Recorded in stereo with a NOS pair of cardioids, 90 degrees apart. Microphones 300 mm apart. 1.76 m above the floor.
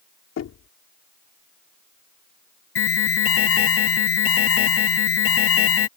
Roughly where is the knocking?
Ahead left.